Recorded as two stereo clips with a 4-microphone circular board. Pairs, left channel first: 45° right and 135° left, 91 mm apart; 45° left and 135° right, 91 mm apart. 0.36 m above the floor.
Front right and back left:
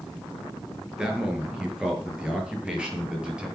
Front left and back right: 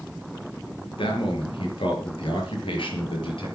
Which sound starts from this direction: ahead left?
A man speaking, at 1.0 s.